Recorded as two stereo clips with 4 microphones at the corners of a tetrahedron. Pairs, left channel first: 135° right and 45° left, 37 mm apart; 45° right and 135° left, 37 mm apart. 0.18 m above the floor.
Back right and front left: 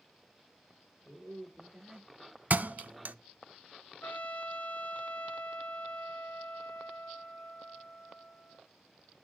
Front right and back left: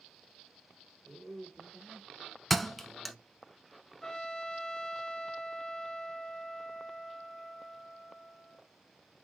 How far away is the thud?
About 0.6 m.